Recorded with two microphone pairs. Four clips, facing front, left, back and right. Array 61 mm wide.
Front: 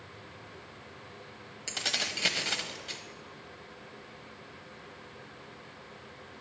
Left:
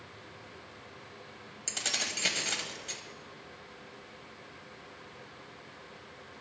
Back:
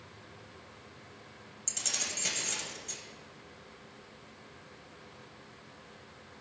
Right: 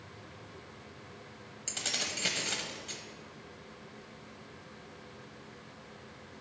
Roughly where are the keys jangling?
Ahead.